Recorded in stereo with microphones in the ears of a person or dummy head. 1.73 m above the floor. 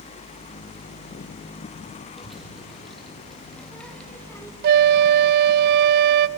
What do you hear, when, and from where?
2.2 s a child speaking: centre (ahead or behind), 4 m; by 4.5 s 15° left (ahead or behind), 1.3 m
4.6 s a flute: 50° right (ahead or behind), 0.6 m